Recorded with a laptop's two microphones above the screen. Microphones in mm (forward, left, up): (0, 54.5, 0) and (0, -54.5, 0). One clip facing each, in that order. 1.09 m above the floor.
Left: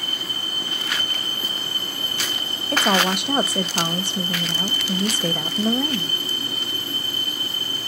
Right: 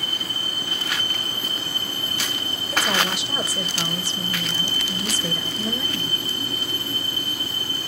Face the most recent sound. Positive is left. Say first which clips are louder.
# left 4 dB
turn(degrees=50)  # may be behind; listen again after turning